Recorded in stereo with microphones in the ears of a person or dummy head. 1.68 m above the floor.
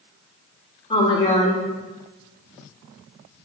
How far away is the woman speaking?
About 0.6 m.